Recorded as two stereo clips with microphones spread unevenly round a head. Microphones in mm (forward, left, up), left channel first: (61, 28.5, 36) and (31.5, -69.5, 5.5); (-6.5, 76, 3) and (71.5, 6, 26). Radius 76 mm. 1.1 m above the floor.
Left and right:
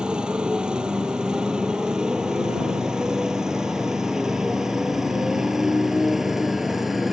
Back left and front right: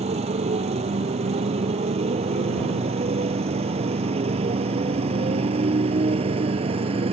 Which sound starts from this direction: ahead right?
A motorcycle, at 0.0 s.